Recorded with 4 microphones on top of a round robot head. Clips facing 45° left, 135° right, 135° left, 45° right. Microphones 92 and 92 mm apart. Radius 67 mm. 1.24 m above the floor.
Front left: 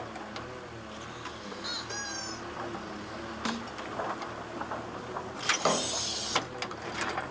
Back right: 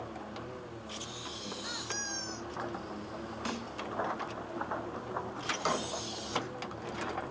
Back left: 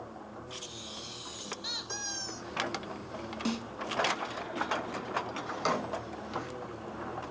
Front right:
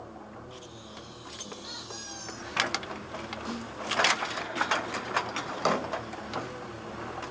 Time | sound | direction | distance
1.6 | a squeak | 125° left | 2.5 m
3.5 | a snare drum | 120° left | 3 m
5.5 | a drawer | 5° left | 1.4 m